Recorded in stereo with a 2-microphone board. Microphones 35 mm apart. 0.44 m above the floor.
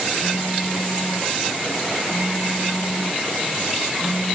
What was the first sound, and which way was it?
A phone buzzing, 60° right (ahead or behind).